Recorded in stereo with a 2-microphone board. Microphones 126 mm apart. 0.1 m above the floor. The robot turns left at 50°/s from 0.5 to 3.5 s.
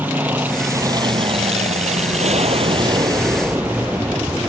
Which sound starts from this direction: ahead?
An aircraft, at 0.0 s.